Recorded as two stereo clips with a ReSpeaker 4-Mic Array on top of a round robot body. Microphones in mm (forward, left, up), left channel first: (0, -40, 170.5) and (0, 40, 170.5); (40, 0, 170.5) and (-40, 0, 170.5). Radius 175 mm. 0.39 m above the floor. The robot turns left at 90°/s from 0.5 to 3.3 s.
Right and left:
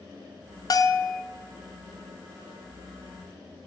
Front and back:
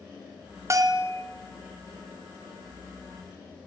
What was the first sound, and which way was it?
A bell, 125° right.